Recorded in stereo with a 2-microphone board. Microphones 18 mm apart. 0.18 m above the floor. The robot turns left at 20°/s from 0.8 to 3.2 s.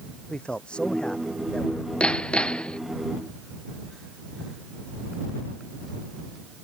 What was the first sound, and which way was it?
A man speaking, 80° left.